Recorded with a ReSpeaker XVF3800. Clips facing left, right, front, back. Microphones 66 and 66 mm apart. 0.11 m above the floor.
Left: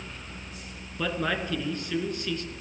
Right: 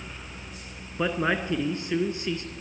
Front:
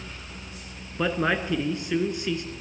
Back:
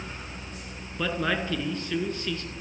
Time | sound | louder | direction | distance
1.0 | a man speaking | right 3 dB, front 3 dB | 50° right | 1.4 m